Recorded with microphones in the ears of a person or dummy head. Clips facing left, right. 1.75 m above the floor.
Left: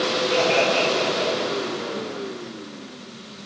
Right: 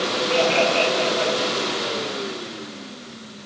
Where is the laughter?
5° left (ahead or behind), 2.5 m.